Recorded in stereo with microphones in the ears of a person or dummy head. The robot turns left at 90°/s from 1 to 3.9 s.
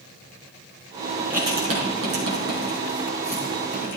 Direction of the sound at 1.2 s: Centre (ahead or behind).